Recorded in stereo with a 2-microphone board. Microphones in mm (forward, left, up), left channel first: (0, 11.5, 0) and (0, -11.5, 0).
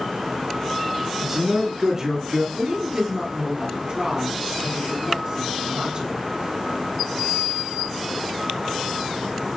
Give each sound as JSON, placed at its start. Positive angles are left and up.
{"t": 1.2, "sound": "a man speaking", "side_deg": -30, "distance_m": 1.4}
{"t": 2.5, "sound": "a woman speaking", "side_deg": -25, "distance_m": 1.2}